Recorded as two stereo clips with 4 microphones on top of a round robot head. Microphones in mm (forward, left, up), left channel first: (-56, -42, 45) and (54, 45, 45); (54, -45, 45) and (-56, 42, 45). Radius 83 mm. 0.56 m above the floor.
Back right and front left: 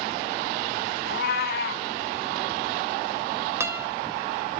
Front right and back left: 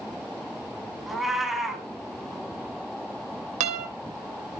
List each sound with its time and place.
1.1 s a cat meowing: 130° right, 2.5 m
3.6 s a guitar: 110° left, 3 m